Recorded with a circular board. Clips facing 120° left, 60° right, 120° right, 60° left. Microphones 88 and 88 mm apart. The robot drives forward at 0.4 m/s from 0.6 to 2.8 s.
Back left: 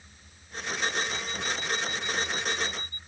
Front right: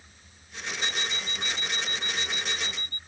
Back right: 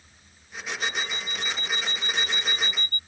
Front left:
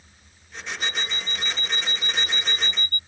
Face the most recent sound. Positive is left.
turn(degrees=-45)